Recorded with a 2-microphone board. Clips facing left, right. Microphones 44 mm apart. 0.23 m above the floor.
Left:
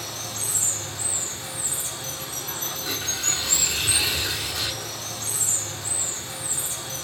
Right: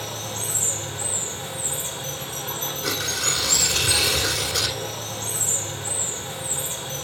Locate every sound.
0.0 s running water: 35° right (ahead or behind), 3 m
2.8 s tearing paper: 85° right, 2.5 m